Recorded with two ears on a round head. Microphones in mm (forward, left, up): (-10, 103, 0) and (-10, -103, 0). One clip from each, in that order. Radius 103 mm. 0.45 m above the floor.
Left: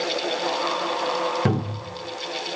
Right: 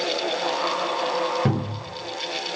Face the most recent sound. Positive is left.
turn(degrees=20)  # may be behind; listen again after turning